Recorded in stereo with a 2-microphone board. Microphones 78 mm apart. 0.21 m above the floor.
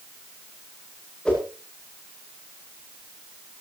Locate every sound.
1.2 s a whoosh: 15° left (ahead or behind), 10 m